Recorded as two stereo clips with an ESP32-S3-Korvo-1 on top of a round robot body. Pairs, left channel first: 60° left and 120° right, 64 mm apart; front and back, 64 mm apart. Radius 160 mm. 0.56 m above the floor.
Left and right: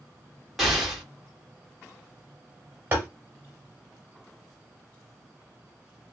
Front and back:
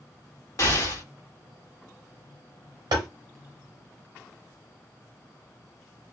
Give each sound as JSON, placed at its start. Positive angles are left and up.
{"t": 0.6, "sound": "an explosion", "azimuth_deg": -30, "distance_m": 1.6}
{"t": 2.9, "sound": "tapping", "azimuth_deg": 180, "distance_m": 0.6}